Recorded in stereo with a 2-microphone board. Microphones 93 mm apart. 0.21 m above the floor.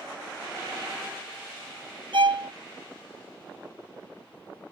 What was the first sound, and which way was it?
A violin, 70° right (ahead or behind).